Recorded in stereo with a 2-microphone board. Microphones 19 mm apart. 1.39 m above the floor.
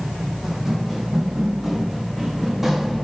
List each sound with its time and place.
0.4 s running footsteps: 25° right (ahead or behind), 5.5 m; by 3.0 s 20° right (ahead or behind), 6.5 m